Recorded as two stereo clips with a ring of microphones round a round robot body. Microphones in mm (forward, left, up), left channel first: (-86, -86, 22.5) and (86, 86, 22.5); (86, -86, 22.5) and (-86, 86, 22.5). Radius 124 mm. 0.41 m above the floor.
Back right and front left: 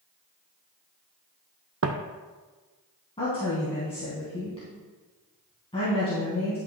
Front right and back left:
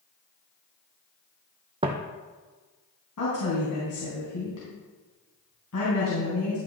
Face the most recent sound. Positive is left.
turn(degrees=-70)